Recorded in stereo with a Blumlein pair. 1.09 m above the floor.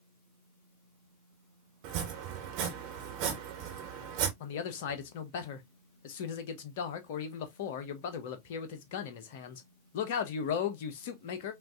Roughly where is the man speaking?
Ahead left.